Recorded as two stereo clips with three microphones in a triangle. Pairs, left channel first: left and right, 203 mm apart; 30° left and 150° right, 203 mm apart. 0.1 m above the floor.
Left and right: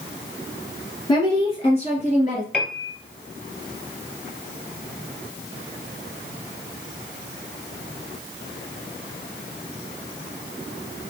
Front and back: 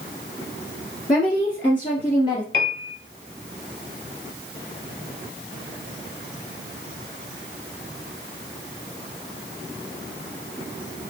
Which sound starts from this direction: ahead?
A piano, at 2.5 s.